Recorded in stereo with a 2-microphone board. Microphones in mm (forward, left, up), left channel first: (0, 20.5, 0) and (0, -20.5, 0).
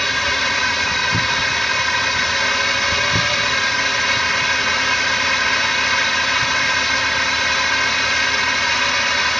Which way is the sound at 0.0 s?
Centre (ahead or behind).